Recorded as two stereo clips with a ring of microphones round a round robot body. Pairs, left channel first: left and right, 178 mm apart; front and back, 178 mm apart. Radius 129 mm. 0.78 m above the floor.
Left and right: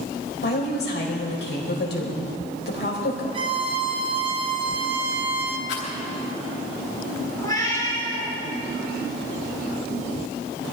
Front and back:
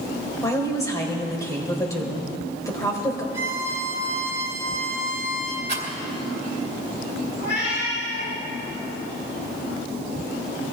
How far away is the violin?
About 1.2 m.